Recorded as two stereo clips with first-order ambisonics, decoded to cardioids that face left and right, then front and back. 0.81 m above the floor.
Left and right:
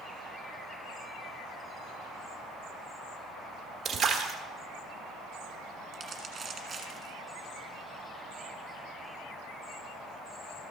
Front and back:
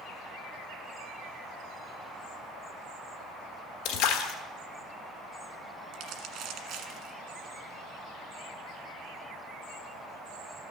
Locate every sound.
3.9 s a splash: 20° right, 1.1 m
5.9 s crumpling: 160° right, 1.5 m